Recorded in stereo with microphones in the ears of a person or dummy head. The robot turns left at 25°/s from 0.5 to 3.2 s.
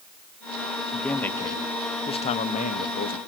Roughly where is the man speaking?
Behind.